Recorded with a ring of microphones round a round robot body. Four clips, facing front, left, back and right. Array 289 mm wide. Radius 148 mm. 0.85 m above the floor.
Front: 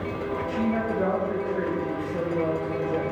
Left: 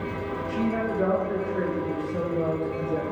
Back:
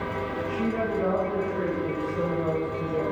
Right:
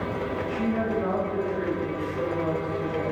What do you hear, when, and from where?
0.5 s a woman speaking: 50° left, 3.5 m